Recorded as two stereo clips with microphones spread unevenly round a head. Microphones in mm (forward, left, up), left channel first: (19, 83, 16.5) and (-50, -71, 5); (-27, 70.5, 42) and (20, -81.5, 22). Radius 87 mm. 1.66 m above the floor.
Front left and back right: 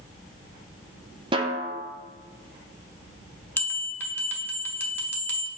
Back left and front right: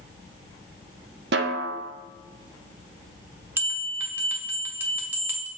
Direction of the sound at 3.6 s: 10° left.